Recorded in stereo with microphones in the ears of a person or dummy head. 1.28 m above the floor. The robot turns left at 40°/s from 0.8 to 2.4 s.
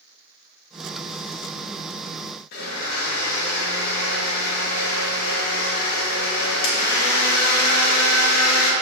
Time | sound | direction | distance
2.5 | a blender | 55° left (ahead or behind) | 2.5 m